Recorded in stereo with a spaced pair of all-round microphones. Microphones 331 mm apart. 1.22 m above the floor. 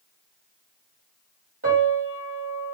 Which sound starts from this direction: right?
A piano, at 1.6 s.